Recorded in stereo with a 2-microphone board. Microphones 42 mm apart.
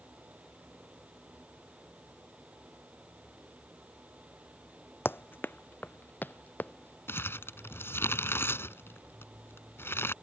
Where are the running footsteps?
65° left (ahead or behind); by 7.0 s 45° left (ahead or behind).